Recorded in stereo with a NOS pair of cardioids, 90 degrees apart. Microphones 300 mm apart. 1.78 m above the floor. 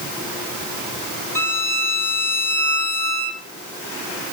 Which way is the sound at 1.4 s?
10° left.